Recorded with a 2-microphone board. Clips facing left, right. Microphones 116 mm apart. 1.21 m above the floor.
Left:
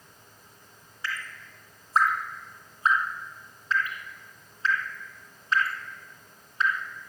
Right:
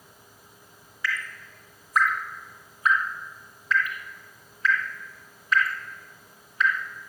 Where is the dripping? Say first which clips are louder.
Right 4 dB; 30° left (ahead or behind), 2 m.